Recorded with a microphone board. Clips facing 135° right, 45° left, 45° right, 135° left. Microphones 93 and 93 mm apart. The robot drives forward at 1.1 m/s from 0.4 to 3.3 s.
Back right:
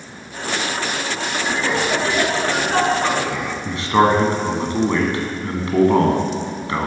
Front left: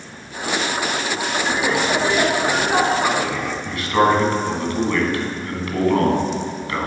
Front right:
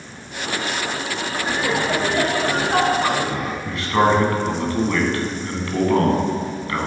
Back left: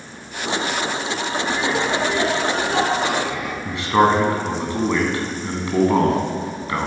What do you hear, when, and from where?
1.5 s laughter: 15° right, 3 m; by 3.5 s 50° right, 1.4 m
3.6 s a man speaking: 175° right, 1.5 m